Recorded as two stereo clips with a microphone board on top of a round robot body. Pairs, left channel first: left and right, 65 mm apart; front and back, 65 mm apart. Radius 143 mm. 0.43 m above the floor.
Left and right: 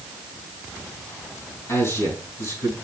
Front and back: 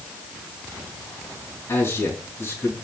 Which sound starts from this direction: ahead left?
A man speaking, at 1.7 s.